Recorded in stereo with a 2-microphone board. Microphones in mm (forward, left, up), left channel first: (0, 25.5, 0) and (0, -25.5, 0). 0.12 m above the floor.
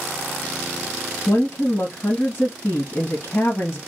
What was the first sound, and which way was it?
A woman speaking, 50° left (ahead or behind).